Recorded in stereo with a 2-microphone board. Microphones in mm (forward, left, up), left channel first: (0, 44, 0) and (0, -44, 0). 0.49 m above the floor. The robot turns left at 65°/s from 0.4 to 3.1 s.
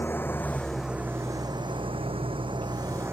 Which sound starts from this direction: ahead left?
An engine running, at 0.0 s.